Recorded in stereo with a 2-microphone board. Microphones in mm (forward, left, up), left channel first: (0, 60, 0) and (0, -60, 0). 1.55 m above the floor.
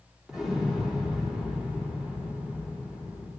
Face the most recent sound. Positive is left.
turn(degrees=-5)  # may be behind; listen again after turning